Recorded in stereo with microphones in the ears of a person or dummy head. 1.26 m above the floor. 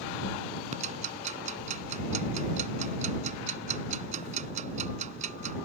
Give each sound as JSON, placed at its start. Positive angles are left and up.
{"t": 0.7, "sound": "ticking", "side_deg": -40}